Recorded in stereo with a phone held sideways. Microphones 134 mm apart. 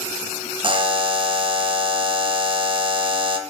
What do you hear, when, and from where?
0.6 s a buzzer: 40° right (ahead or behind), 1.5 m